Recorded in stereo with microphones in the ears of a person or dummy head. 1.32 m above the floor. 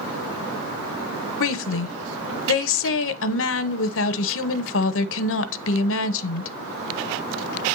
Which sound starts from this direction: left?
A woman speaking, at 1.4 s.